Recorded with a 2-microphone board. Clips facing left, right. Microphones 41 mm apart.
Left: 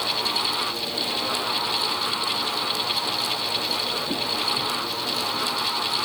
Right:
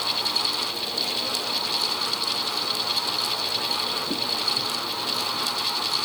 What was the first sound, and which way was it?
Only background noise.